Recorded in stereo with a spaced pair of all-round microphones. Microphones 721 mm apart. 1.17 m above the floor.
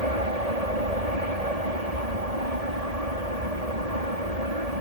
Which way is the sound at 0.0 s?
60° right (ahead or behind).